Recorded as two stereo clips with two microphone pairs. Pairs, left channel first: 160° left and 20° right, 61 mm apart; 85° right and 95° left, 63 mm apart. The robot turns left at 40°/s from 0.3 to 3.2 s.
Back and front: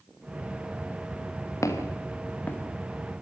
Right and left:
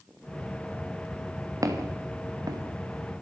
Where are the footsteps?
125° left, 4.5 m; by 3.2 s 80° left, 2.5 m.